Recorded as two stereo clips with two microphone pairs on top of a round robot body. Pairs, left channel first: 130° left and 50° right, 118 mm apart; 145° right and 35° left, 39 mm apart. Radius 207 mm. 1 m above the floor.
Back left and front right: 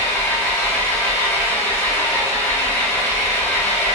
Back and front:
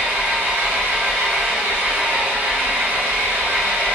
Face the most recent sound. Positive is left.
turn(degrees=55)